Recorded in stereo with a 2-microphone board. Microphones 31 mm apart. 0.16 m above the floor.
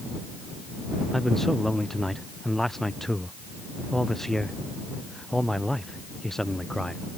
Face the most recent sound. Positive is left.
turn(degrees=15)  # may be behind; listen again after turning